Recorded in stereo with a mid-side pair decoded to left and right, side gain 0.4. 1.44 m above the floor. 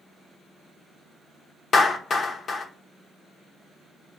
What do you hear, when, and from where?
1.7 s a clap: 55° left, 1.0 m